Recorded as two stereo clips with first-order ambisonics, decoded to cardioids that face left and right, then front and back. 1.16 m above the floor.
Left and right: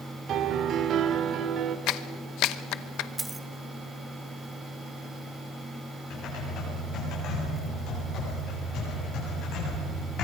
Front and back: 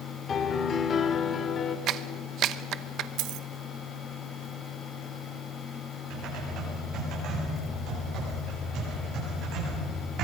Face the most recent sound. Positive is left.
turn(degrees=135)